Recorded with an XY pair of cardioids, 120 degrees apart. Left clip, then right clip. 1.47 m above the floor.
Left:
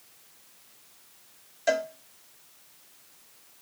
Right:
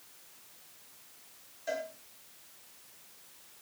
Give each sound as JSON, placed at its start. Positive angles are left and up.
{"t": 1.7, "sound": "a cowbell", "azimuth_deg": 70, "distance_m": 1.1}